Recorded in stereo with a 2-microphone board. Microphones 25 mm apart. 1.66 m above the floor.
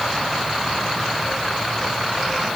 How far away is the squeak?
I don't hear a squeak.